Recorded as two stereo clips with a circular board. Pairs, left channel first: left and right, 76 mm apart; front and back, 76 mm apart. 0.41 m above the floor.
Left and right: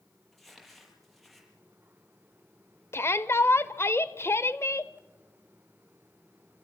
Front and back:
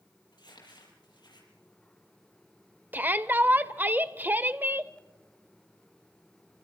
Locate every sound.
0.3 s crumpling: straight ahead, 7.5 m
2.9 s a shout: 130° left, 1.2 m